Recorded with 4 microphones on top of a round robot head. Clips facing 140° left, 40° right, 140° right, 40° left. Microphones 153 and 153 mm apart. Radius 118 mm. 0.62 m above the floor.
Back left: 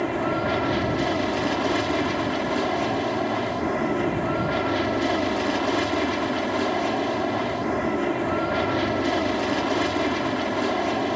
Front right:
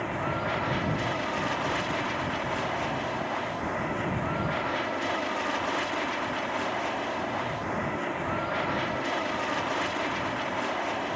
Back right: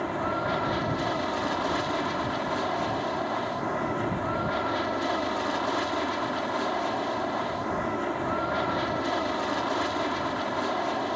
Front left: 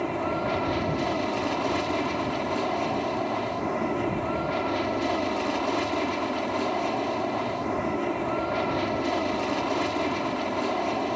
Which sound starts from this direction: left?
An aircraft, at 0.0 s.